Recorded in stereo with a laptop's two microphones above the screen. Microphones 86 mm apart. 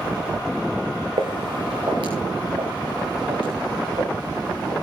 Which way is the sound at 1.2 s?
70° right (ahead or behind).